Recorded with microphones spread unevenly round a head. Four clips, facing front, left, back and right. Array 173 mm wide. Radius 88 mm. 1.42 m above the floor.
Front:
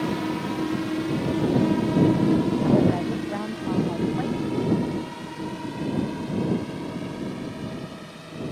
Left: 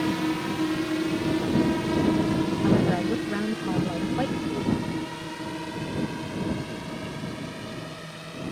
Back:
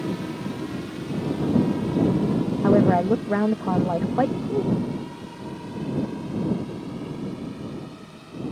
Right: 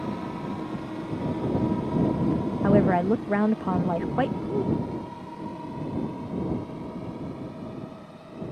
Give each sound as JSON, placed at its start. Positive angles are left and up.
{"t": 0.0, "sound": "a drone", "azimuth_deg": 45}
{"t": 2.6, "sound": "a woman speaking", "azimuth_deg": -155}